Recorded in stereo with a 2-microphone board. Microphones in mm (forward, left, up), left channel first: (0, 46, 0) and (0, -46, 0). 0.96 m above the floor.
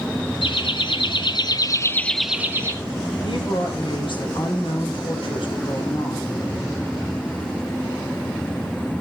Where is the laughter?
65° left (ahead or behind), 1.4 m; by 2.8 s 30° right (ahead or behind), 0.7 m.